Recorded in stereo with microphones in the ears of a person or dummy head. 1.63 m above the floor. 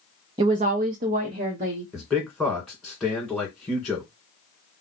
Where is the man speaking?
Centre (ahead or behind), 1.7 m.